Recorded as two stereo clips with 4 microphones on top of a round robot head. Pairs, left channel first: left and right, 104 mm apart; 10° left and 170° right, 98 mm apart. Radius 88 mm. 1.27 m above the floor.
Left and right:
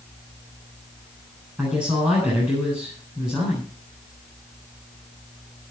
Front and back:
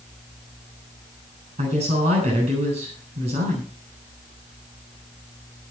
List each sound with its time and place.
1.6 s a woman speaking: 170° right, 8 m